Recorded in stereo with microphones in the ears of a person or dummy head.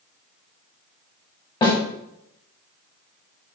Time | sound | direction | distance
1.6 | a snare drum | 25° left (ahead or behind) | 1.8 m